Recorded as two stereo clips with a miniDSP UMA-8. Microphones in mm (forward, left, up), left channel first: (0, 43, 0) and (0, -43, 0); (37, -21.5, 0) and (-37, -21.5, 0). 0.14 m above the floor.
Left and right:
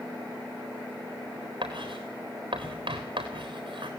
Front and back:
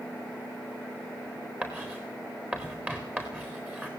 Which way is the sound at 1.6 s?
110° right.